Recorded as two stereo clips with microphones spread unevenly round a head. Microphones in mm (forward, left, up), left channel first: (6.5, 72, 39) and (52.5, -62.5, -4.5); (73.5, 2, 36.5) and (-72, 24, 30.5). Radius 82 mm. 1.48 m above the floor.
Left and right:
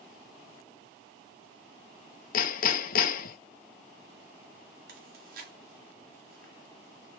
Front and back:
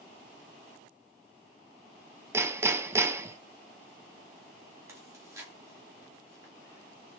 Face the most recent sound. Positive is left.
turn(degrees=-115)